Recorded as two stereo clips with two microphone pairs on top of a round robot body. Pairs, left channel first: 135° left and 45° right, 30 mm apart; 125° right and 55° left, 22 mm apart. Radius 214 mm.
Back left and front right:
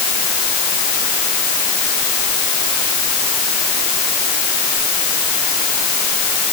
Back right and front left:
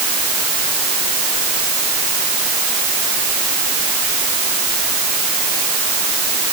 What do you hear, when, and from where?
Only background noise.